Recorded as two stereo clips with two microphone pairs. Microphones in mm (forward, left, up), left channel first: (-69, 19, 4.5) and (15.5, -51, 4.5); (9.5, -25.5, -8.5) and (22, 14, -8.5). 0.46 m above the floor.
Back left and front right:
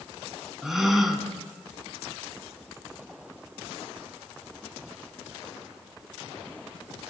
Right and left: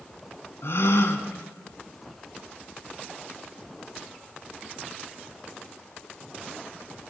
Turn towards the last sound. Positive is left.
turn(degrees=-125)